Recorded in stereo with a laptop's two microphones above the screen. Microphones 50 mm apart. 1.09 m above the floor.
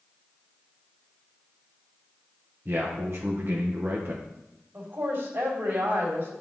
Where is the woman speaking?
45° right (ahead or behind), 2 m.